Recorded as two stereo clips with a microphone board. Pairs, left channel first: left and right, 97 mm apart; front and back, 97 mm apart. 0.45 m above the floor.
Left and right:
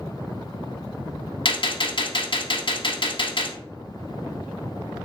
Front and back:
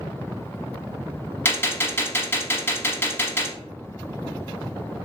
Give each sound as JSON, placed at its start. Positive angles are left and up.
{"t": 1.4, "sound": "a gunshot", "azimuth_deg": 65, "distance_m": 0.6}